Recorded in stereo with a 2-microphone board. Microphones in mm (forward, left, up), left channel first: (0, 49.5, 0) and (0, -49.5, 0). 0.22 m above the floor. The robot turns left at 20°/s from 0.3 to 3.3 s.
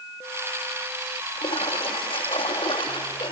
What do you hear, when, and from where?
1.4 s a splash: 100° left, 3 m; by 3.3 s 60° left, 3 m